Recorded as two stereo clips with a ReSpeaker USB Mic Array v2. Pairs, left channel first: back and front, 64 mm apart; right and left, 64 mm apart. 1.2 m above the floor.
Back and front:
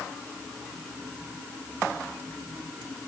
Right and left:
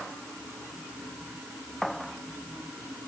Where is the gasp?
I don't hear a gasp.